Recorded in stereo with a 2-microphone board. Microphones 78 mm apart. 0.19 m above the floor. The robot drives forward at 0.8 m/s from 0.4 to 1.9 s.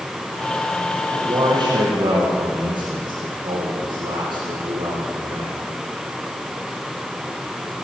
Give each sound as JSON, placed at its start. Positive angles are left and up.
{"t": 1.1, "sound": "a man speaking", "side_deg": -65, "distance_m": 6.0}